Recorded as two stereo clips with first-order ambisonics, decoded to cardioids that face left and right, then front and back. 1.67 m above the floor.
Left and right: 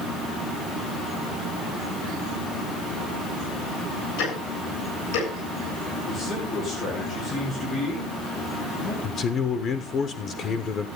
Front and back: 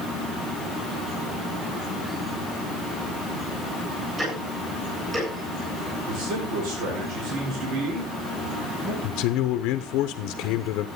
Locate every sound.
4.2 s ticking: 105° left, 7.5 m
6.1 s a man speaking: 155° left, 4.5 m
9.0 s a man speaking: 30° left, 0.8 m